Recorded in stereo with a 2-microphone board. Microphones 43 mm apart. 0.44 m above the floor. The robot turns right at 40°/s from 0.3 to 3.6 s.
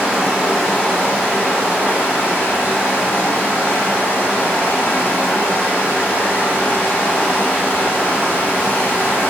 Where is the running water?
10° right, 1.0 m; by 9.3 s 120° left, 1.0 m.